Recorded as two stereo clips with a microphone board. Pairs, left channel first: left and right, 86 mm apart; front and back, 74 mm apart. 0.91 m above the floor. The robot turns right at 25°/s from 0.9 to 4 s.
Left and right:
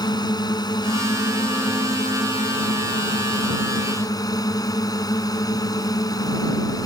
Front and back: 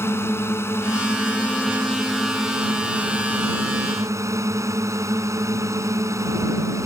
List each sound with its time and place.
0.0 s a drone: 55° left; by 6.9 s 135° left